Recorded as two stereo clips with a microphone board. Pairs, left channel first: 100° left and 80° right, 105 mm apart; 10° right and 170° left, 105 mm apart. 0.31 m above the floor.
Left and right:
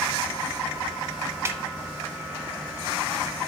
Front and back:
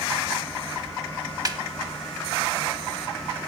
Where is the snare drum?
140° right, 0.6 m.